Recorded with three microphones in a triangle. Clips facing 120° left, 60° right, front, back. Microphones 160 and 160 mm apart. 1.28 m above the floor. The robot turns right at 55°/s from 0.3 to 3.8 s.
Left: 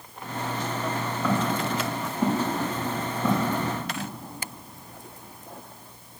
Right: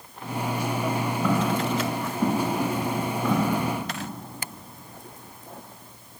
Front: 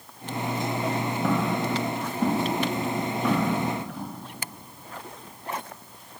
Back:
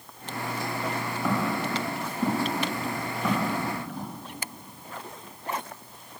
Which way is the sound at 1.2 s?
5° left.